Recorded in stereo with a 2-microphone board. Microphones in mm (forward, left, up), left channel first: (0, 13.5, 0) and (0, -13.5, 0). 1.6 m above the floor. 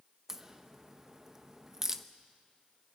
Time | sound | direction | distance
0.3 | a crack | 15° right (ahead or behind) | 0.9 m